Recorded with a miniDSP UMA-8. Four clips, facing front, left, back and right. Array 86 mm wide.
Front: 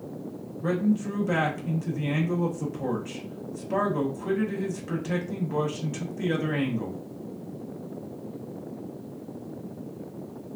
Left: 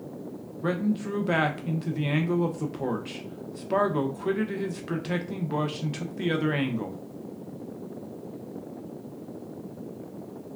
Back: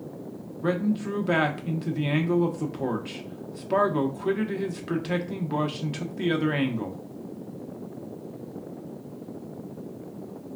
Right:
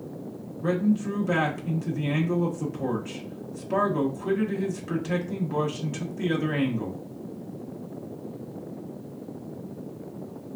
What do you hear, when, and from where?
0.6 s a man speaking: 140° left, 0.7 m